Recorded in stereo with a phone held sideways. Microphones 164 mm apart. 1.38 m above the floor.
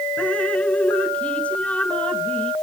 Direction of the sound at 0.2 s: 10° left (ahead or behind).